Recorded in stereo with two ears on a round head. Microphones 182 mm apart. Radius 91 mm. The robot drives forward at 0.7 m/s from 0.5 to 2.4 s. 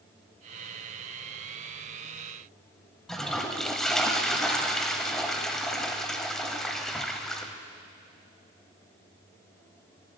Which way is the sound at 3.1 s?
Centre (ahead or behind).